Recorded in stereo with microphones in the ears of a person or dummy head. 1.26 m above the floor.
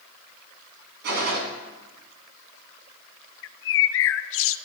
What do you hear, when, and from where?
1.0 s a gunshot: 55° right (ahead or behind), 2.5 m
3.4 s a bird: 65° left (ahead or behind), 0.5 m